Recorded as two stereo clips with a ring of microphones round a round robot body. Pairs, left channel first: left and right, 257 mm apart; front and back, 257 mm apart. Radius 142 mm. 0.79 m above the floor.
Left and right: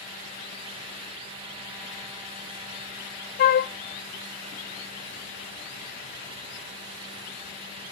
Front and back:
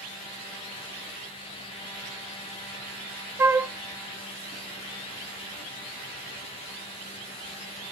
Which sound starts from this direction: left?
A flute, at 3.4 s.